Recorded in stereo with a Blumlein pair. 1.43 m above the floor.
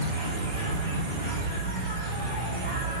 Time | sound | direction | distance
0.0 | an insect | 50° right | 0.7 m